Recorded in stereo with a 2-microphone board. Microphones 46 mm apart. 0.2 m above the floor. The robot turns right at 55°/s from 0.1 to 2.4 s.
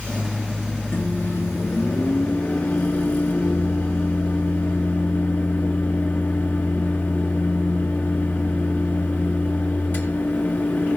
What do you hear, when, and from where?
0.9 s a microwave: 50° left, 3 m; by 11.0 s 130° left, 3 m